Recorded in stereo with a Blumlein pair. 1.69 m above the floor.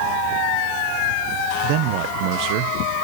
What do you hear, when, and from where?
1.6 s a man speaking: 45° right, 1.2 m